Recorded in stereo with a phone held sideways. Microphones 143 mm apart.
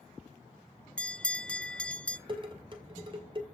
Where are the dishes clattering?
35° right (ahead or behind), 2.5 m.